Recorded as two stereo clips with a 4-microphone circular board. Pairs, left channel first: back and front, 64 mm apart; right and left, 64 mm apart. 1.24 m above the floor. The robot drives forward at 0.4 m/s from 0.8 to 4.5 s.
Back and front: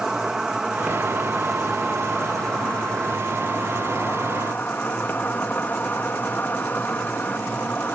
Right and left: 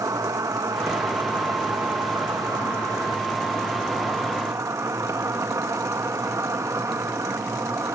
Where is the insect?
80° left; by 8.0 s 120° left.